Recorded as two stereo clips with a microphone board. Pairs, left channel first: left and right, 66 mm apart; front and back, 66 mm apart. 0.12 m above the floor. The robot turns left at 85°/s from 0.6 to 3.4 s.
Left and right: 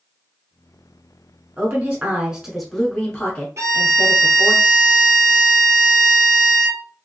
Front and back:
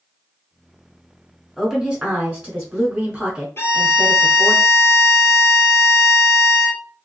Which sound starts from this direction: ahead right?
A violin, at 3.6 s.